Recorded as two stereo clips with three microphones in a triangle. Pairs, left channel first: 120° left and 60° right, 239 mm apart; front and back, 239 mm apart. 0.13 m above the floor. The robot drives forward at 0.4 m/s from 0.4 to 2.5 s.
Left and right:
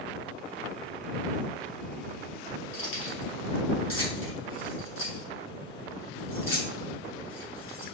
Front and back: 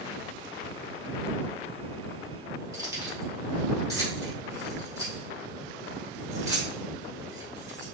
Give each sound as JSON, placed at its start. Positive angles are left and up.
{"t": 2.7, "sound": "keys jangling", "azimuth_deg": 105, "distance_m": 1.9}